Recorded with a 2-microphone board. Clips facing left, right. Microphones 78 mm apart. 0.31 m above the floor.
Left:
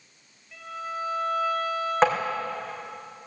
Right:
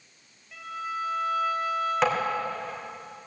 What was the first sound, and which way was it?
A violin, 10° right (ahead or behind).